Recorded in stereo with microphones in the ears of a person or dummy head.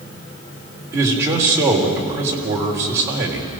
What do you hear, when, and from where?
0.9 s a man speaking: 15° right (ahead or behind), 3.5 m